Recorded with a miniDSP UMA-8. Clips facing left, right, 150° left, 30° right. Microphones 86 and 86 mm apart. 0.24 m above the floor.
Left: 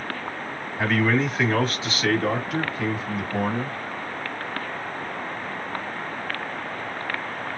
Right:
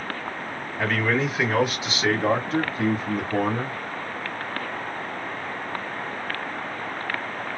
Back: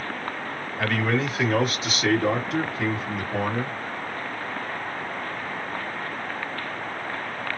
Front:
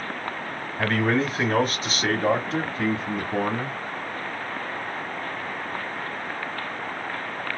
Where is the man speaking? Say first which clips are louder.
Left 2 dB, front 2 dB; 10° left, 1.4 m; by 3.8 s 85° right, 1.6 m.